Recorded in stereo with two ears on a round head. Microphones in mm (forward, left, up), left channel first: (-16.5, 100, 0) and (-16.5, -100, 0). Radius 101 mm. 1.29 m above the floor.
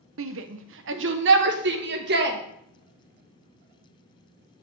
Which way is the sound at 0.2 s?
65° right (ahead or behind).